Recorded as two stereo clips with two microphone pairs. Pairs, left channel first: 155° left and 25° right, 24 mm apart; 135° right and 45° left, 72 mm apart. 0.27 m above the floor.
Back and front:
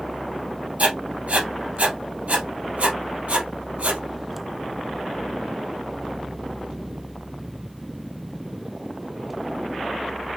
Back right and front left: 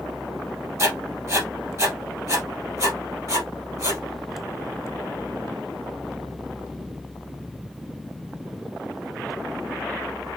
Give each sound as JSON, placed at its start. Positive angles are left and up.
{"t": 0.8, "sound": "writing", "azimuth_deg": 0, "distance_m": 2.0}